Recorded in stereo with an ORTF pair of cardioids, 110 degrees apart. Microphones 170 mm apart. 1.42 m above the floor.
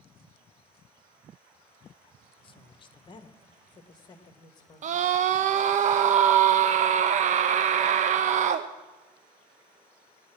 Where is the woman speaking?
30° left, 1.1 m; by 5.1 s 25° left, 2.5 m.